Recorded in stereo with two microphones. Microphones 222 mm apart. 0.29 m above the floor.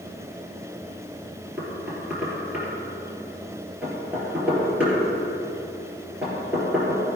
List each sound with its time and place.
1.6 s knocking: 5° right (ahead or behind), 4 m